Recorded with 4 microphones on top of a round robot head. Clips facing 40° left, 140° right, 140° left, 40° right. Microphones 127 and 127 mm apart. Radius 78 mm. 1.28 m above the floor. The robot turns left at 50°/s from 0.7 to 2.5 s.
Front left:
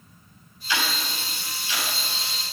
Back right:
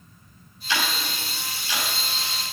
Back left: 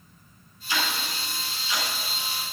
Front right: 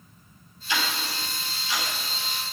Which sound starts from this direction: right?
Ticking, at 0.7 s.